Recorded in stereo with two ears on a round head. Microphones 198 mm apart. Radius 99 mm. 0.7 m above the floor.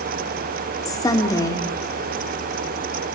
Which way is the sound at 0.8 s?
15° left (ahead or behind).